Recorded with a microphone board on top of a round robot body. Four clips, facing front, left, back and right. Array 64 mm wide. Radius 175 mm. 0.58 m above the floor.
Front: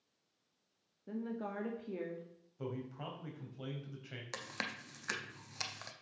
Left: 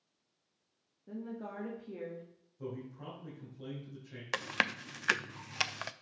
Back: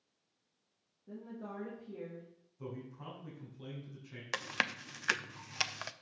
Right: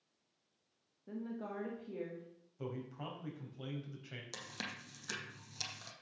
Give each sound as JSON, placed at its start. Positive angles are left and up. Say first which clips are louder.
{"t": 1.1, "sound": "a woman speaking", "louder": "left 1 dB, front 5 dB", "azimuth_deg": -15, "distance_m": 1.8}
{"t": 2.6, "sound": "a man speaking", "louder": "left 1 dB, front 3 dB", "azimuth_deg": -35, "distance_m": 3.5}
{"t": 4.3, "sound": "chewing", "louder": "left 15 dB, back 7 dB", "azimuth_deg": 120, "distance_m": 0.5}